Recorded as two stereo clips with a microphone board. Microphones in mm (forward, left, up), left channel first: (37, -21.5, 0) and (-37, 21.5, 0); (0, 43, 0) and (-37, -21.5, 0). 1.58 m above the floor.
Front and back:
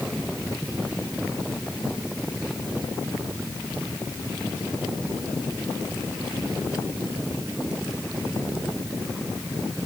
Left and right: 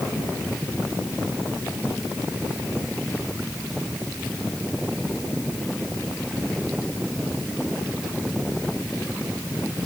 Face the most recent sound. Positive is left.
No sound to turn to.